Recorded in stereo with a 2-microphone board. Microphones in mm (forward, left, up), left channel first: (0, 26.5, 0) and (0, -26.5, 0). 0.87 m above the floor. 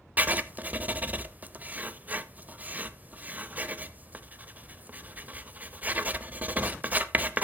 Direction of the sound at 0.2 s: 35° right (ahead or behind).